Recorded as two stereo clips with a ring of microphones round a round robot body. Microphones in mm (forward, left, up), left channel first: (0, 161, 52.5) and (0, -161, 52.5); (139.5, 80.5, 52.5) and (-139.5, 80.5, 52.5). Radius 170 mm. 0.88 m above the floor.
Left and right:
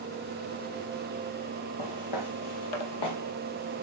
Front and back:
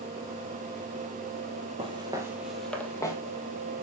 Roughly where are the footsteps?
Left.